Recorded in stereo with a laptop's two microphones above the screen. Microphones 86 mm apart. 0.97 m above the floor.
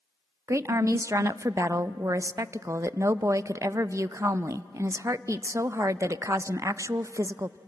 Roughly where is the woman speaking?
Right.